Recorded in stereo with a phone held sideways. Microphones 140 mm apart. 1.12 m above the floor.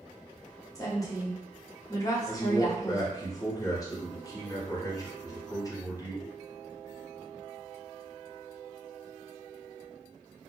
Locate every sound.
0.8 s a woman speaking: 25° left (ahead or behind), 0.8 m
2.3 s a man speaking: 25° left (ahead or behind), 1.0 m